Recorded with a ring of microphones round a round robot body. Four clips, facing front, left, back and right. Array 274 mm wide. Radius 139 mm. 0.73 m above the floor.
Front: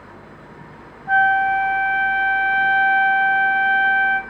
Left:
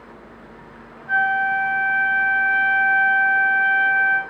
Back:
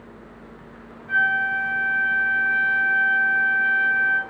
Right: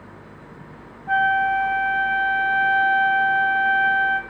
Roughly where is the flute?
Ahead.